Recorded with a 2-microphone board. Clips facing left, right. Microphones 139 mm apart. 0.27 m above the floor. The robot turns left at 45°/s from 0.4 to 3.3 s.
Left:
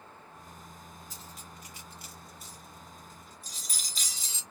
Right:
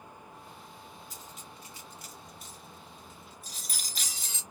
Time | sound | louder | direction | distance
1.1 | cutlery clinking | even | 10° right (ahead or behind) | 1.6 m